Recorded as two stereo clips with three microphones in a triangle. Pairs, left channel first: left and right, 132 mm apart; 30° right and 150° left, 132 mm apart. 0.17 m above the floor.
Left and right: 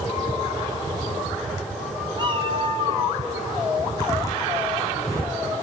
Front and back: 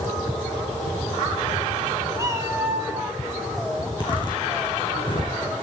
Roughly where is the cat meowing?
Behind right.